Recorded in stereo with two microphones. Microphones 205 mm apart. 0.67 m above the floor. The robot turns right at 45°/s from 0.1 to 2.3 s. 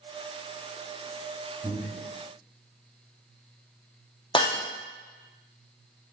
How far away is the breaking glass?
About 0.6 m.